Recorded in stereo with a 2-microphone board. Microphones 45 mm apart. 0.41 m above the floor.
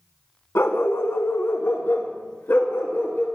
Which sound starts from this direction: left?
A dog barking, at 0.6 s.